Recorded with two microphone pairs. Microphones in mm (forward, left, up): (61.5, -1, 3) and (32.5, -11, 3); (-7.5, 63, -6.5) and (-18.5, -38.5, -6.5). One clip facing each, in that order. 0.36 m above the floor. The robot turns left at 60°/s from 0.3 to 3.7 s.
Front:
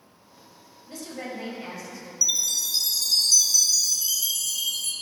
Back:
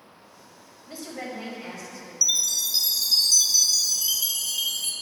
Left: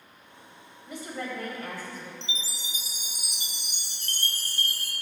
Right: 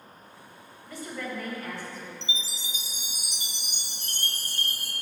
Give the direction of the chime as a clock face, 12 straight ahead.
2 o'clock.